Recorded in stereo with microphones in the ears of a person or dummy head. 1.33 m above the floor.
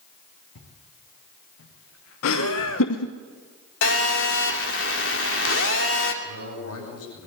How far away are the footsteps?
About 8 m.